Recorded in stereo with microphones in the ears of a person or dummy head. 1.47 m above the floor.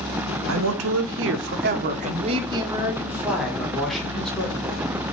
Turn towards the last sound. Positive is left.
turn(degrees=10)  # may be behind; listen again after turning